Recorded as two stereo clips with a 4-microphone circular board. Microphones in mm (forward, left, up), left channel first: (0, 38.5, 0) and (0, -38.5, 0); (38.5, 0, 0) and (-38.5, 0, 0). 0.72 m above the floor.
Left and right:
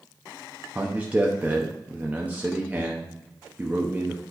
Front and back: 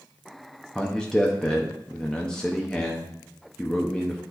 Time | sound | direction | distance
0.8 | a man speaking | 65° right | 0.7 m